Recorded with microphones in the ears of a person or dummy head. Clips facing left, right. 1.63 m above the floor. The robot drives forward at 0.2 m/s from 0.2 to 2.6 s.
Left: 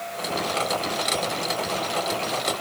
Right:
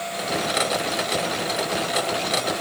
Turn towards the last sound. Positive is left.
No sound to turn to.